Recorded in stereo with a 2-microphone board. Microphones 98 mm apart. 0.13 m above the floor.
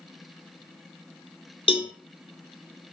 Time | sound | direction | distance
1.7 | a cowbell | 80° left | 0.5 m